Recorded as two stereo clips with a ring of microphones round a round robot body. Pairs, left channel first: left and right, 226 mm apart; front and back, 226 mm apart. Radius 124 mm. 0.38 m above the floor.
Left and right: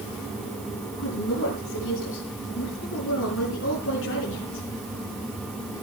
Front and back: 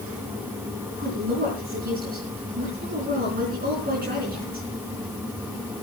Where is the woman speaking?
130° left, 4.5 m.